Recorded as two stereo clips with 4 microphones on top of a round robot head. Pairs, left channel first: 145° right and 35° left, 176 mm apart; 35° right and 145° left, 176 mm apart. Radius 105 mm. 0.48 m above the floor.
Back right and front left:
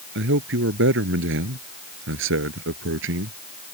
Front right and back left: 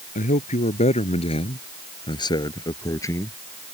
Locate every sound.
0.1 s a man speaking: 15° left; by 3.4 s 40° left